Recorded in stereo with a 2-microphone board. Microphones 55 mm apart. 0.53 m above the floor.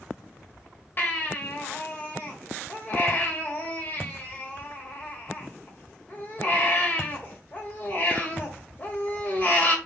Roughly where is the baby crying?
Left.